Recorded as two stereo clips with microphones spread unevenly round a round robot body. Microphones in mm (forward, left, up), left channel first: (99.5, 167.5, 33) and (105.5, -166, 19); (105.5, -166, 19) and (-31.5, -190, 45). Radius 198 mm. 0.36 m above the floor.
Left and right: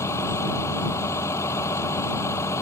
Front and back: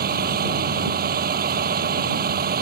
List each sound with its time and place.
0.0 s a vehicle: 175° left